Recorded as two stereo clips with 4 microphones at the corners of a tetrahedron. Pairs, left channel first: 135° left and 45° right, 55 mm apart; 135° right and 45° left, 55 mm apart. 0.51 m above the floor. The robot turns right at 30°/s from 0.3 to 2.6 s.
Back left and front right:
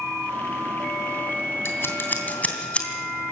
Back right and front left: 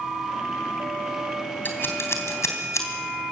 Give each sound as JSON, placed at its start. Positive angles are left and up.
{"t": 1.6, "sound": "scissors", "azimuth_deg": 175, "distance_m": 3.0}